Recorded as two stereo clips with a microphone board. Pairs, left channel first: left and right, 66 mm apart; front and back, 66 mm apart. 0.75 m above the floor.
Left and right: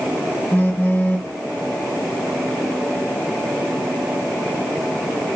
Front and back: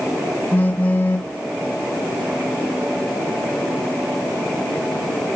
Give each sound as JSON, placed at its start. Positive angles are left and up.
{"t": 0.5, "sound": "a phone buzzing", "azimuth_deg": 45, "distance_m": 0.5}